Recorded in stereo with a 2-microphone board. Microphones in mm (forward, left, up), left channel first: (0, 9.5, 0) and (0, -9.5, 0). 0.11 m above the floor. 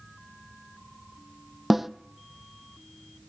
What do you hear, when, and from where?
1.7 s a snare drum: 5° right (ahead or behind), 0.7 m